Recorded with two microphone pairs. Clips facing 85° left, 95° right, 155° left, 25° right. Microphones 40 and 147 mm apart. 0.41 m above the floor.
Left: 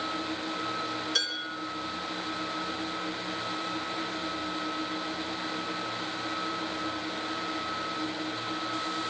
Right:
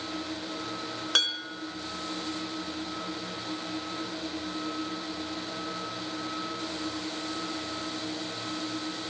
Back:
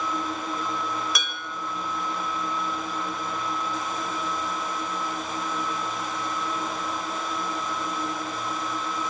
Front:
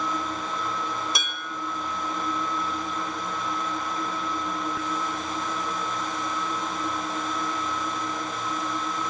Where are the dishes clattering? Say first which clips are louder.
Right 3 dB, even; 85° right, 3 m.